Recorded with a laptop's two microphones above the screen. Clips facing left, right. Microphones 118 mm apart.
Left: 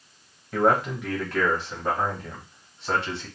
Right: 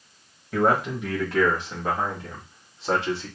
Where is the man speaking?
5° right (ahead or behind), 1.4 m; by 3.3 s 25° right (ahead or behind), 2.5 m.